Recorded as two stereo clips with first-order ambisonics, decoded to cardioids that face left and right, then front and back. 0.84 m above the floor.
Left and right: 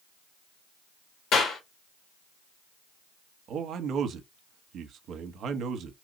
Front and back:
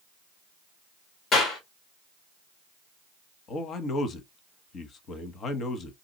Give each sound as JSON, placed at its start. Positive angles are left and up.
{"t": 1.3, "sound": "a clap", "azimuth_deg": 60, "distance_m": 2.0}
{"t": 3.5, "sound": "a man speaking", "azimuth_deg": -50, "distance_m": 0.8}